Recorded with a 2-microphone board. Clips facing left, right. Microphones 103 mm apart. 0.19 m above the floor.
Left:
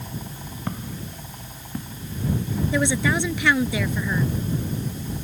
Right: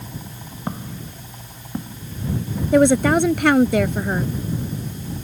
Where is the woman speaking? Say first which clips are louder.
Right 10 dB; 50° right (ahead or behind).